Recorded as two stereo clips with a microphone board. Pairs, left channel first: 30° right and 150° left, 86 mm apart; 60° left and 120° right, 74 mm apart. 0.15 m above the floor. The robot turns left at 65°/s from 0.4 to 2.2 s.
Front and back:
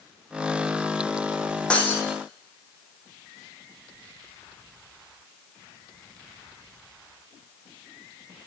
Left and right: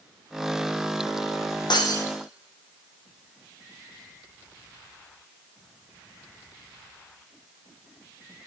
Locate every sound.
1.7 s breaking glass: 45° left, 2.5 m; by 2.0 s 25° left, 2.5 m